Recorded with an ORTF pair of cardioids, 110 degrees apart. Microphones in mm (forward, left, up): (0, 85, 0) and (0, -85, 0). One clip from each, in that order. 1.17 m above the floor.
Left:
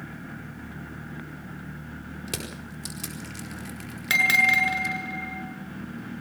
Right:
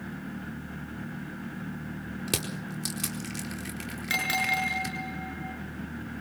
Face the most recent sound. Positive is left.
turn(degrees=35)